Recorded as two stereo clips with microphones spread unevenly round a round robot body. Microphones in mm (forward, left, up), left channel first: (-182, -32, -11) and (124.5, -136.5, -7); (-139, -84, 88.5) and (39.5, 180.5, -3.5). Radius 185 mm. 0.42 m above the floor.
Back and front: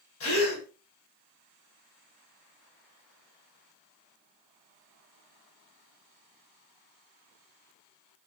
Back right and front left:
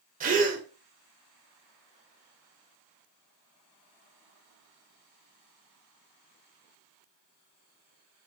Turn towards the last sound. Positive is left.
turn(degrees=110)